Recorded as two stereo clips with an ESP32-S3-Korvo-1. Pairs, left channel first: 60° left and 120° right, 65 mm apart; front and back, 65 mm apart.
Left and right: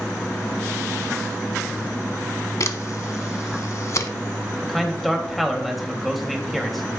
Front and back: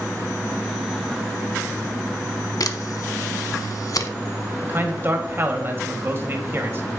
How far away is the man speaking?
About 1.7 m.